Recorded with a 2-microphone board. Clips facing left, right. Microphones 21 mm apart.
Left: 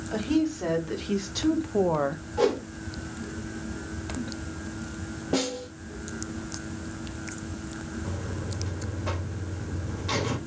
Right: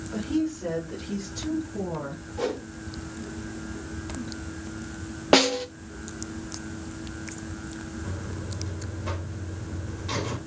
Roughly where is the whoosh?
Left.